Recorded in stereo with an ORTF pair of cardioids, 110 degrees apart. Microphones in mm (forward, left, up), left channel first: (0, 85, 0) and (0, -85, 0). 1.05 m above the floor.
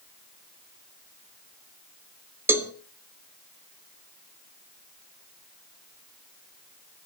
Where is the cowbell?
15° right, 1.5 m.